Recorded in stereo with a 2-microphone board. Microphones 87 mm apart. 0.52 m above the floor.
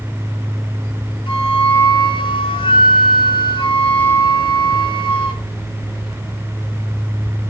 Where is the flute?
70° left (ahead or behind), 3.5 m.